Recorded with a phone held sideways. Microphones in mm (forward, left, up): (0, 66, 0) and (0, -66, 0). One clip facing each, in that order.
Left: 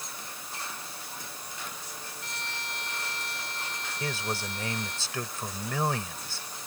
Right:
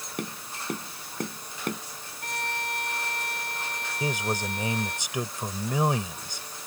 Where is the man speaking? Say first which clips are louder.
Right 5 dB; 15° right (ahead or behind).